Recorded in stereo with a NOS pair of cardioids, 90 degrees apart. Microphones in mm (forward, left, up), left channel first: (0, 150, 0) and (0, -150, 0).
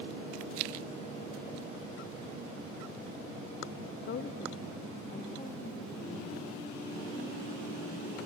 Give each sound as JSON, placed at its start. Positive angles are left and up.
{"t": 4.0, "sound": "a woman speaking", "azimuth_deg": 45, "distance_m": 0.5}